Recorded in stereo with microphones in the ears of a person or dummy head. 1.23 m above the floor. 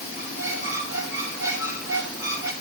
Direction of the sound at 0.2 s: 20° right (ahead or behind).